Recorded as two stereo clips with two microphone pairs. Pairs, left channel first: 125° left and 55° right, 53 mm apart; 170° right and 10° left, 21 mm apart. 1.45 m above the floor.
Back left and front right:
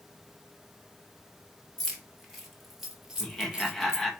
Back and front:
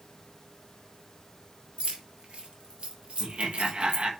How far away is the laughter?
About 1.7 m.